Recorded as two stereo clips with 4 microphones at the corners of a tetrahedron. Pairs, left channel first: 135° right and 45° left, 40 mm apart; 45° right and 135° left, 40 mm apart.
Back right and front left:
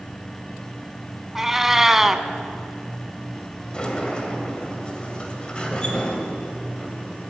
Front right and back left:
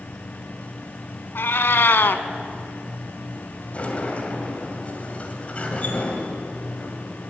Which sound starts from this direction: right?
A sliding door, at 3.7 s.